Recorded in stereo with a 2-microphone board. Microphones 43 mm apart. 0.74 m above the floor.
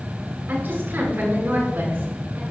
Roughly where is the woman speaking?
Right.